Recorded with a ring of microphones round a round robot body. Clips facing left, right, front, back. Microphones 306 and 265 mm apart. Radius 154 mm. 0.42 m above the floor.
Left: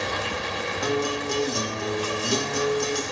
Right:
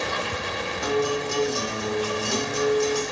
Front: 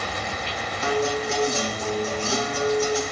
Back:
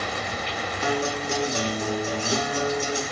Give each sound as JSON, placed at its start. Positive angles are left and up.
{"t": 0.8, "sound": "a guitar", "azimuth_deg": 115, "distance_m": 0.7}